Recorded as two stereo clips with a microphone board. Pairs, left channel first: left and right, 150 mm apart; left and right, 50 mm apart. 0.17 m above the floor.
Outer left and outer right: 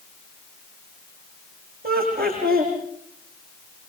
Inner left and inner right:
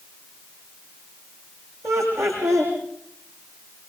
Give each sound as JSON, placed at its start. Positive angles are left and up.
{"t": 1.8, "sound": "laughter", "side_deg": -80, "distance_m": 8.0}